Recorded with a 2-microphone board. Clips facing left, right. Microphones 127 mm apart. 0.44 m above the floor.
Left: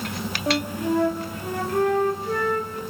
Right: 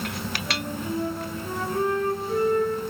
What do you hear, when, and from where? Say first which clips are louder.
0.5 s a flute: left 9 dB; 70° left (ahead or behind), 2.0 m